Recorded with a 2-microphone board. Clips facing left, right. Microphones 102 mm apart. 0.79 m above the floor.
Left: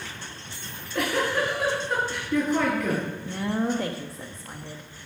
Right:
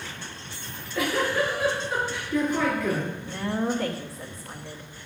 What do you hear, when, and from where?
0.6 s a giggle: 75° left (ahead or behind), 5 m
3.2 s a woman speaking: 20° left (ahead or behind), 0.8 m